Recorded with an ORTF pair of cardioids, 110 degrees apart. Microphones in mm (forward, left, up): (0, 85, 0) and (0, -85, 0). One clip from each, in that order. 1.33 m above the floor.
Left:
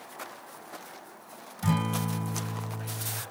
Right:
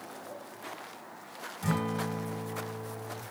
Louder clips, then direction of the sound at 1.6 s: Left 2 dB; 15° left.